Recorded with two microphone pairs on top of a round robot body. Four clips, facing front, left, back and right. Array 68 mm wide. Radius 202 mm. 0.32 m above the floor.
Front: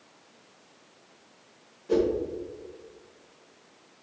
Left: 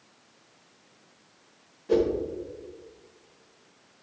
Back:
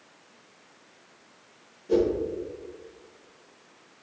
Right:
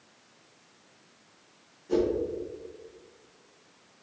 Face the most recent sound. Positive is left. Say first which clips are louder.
# left 3 dB, back 1 dB
turn(degrees=65)